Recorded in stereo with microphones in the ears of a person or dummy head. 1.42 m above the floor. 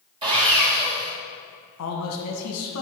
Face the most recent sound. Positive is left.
turn(degrees=80)